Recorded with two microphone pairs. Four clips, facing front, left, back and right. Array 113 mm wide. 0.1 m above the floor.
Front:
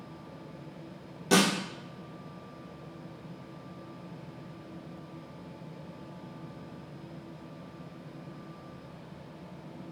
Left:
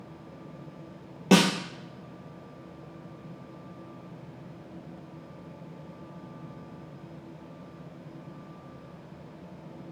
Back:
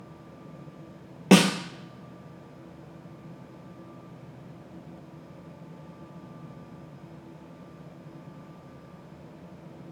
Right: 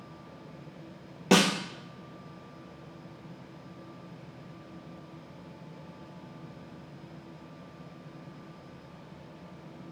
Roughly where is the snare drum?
Behind.